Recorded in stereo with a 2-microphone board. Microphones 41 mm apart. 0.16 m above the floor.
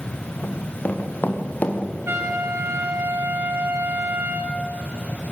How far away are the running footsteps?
About 4 m.